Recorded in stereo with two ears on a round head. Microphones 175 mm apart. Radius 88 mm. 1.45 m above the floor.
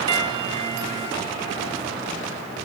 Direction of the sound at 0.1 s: 25° right (ahead or behind).